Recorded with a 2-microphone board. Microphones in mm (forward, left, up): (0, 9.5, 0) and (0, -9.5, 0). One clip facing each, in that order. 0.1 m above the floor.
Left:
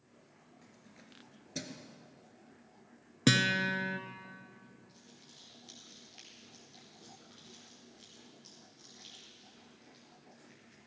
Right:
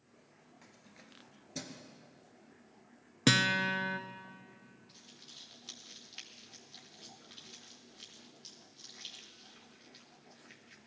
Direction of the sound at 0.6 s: 25° right (ahead or behind).